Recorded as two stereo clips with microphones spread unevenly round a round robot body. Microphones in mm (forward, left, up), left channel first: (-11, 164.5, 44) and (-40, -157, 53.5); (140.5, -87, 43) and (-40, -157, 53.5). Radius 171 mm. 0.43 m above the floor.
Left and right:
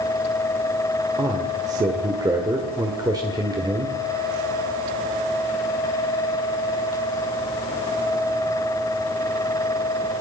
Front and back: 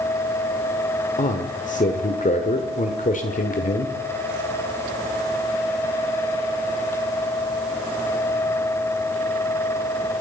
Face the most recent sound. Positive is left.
turn(degrees=-15)